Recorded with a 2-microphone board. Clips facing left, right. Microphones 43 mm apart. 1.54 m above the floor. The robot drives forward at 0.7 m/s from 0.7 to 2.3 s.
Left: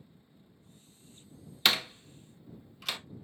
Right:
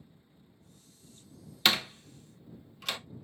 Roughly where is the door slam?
Centre.